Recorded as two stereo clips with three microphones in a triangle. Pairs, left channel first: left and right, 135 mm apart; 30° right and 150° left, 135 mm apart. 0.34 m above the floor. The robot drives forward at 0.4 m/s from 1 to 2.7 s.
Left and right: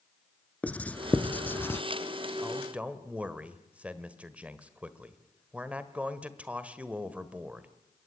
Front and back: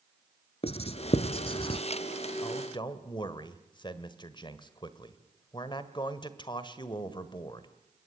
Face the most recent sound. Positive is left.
turn(degrees=-15)